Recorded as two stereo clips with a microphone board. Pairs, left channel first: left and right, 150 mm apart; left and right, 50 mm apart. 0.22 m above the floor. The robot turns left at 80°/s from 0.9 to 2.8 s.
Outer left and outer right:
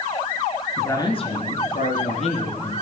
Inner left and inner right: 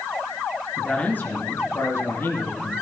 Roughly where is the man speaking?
Behind.